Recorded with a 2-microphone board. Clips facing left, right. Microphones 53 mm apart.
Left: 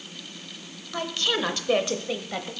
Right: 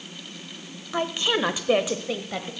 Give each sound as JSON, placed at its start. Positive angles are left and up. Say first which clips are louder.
{"t": 0.9, "sound": "a woman speaking", "louder": "right 3 dB", "side_deg": -20, "distance_m": 0.9}